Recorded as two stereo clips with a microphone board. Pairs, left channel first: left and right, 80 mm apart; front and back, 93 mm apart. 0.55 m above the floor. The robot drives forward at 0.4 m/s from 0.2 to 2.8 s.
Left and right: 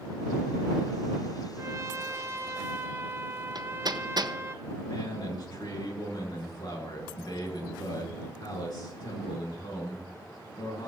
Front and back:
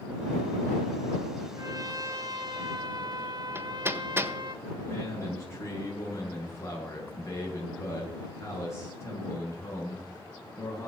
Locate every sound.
1.6 s a trumpet: 135° right, 1.4 m; by 4.5 s 145° right, 1.7 m
3.5 s hammering: 115° right, 1.4 m
4.9 s a man speaking: 60° left, 8 m